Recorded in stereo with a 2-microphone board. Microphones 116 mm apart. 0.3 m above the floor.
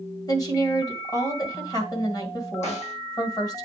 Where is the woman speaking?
35° left (ahead or behind), 1.8 m.